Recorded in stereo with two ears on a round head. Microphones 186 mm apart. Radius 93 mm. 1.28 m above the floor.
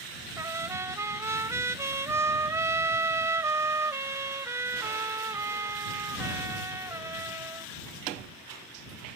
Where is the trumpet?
15° right (ahead or behind).